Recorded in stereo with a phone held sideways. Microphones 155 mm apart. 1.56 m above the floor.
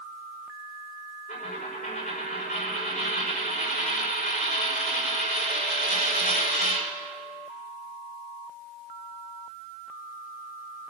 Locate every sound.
1.3 s a dropped coin: 75° left (ahead or behind), 5.5 m